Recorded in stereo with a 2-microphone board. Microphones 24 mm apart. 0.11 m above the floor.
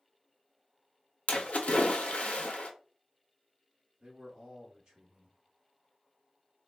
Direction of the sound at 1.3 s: 75° left (ahead or behind).